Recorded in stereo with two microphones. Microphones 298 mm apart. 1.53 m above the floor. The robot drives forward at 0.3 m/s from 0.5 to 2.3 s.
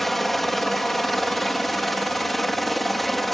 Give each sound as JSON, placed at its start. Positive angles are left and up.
{"t": 0.0, "sound": "a helicopter", "side_deg": 0}